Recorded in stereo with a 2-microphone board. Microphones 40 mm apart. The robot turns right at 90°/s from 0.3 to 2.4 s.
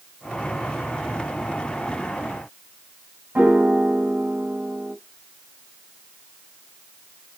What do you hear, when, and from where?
3.4 s a piano: 45° right (ahead or behind), 2.0 m